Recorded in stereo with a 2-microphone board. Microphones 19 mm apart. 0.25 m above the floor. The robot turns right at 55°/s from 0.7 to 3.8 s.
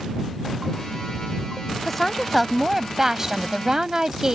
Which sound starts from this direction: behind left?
A woman speaking, at 1.8 s.